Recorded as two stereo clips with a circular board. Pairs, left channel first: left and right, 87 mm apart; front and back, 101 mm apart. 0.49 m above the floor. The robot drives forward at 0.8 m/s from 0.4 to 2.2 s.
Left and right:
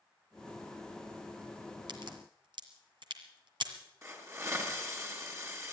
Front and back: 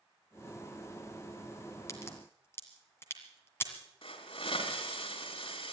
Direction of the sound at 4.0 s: 30° right.